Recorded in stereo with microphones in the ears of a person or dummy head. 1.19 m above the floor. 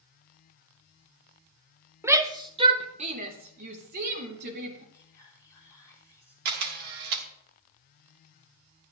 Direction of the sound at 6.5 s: 45° right (ahead or behind).